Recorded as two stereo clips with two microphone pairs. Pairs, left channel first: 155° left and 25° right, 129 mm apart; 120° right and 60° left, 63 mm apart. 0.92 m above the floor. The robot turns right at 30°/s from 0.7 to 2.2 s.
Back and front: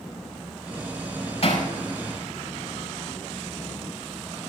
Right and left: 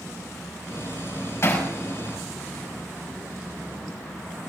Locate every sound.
1.4 s hammering: 170° right, 6 m; by 1.7 s 160° right, 6 m